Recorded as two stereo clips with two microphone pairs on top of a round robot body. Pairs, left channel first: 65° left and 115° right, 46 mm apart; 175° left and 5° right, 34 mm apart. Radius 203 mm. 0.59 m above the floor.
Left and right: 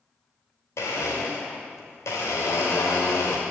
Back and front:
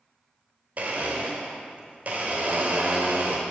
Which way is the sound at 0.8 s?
45° left.